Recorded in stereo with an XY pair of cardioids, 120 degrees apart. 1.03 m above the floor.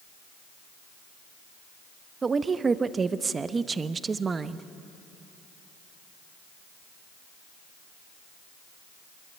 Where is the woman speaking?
30° right, 1.0 m.